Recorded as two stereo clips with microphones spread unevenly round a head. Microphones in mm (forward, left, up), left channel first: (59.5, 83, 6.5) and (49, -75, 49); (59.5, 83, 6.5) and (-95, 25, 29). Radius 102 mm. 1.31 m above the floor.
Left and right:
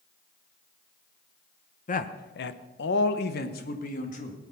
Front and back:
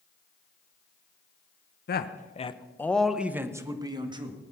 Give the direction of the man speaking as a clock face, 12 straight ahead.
10 o'clock.